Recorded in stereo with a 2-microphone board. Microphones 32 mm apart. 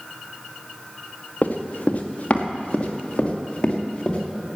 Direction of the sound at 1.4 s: 50° left (ahead or behind).